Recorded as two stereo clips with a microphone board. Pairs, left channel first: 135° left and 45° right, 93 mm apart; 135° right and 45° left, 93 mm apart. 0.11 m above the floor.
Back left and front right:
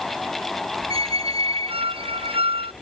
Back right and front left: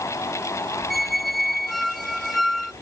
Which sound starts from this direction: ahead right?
A squeak, at 0.9 s.